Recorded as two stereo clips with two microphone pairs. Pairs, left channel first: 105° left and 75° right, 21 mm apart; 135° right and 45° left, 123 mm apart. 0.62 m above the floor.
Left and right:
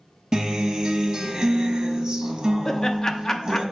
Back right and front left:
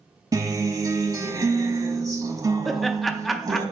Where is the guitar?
15° right, 1.0 m.